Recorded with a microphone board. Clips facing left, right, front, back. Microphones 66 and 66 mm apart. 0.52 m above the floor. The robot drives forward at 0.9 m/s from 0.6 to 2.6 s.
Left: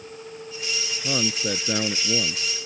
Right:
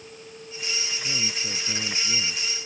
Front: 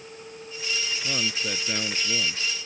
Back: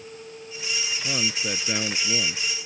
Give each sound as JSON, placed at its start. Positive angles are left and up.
{"t": 1.0, "sound": "a man speaking", "azimuth_deg": 95}